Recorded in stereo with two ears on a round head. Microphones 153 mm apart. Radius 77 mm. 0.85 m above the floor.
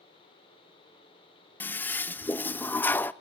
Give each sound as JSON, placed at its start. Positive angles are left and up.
{"t": 1.6, "sound": "a toilet flushing", "side_deg": 10, "distance_m": 0.5}